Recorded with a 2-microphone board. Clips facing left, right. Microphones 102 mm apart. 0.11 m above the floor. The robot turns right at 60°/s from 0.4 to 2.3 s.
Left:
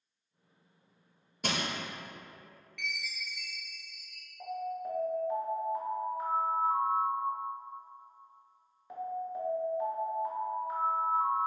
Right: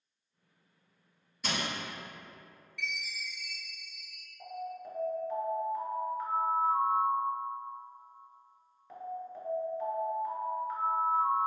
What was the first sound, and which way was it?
Crushing, 60° left (ahead or behind).